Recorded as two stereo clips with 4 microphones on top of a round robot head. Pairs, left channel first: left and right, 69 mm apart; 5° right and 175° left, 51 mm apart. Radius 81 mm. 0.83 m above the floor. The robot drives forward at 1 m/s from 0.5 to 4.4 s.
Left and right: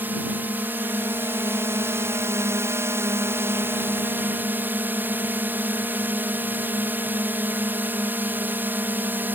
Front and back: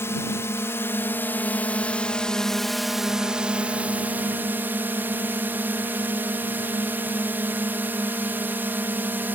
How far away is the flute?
I don't hear a flute.